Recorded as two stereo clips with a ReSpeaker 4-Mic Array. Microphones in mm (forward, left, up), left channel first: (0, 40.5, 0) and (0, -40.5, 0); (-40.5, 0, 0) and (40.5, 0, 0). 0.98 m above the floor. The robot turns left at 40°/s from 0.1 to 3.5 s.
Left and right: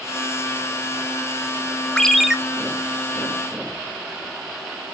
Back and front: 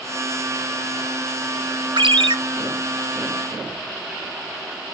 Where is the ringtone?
10° left, 0.6 m; by 2.4 s 5° right, 0.6 m.